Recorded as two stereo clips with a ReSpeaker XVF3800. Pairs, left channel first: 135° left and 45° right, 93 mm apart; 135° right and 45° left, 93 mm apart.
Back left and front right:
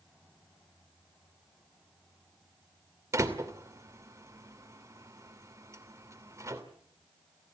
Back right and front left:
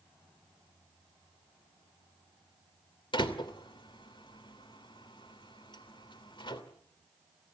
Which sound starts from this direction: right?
A door slam, at 3.1 s.